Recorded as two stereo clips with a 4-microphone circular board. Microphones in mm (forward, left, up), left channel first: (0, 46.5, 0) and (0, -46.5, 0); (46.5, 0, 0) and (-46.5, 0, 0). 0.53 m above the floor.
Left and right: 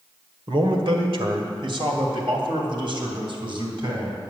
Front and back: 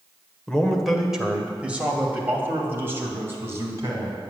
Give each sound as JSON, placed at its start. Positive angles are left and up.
{"t": 0.5, "sound": "a man speaking", "azimuth_deg": -85, "distance_m": 1.8}